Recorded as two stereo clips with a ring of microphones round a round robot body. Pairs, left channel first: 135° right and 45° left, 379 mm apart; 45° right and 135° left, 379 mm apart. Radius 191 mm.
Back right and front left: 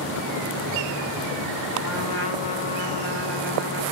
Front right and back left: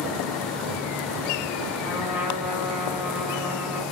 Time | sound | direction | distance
1.8 | a trumpet | 140° right | 1.6 m